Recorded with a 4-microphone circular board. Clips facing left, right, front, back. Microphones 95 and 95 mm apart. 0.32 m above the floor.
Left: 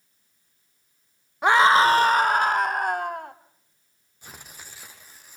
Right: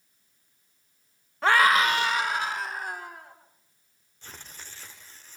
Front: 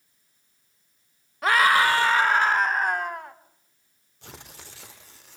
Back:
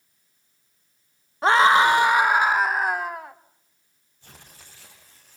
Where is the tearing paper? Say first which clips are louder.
Left 1 dB, front 6 dB; 10° left, 4.5 m.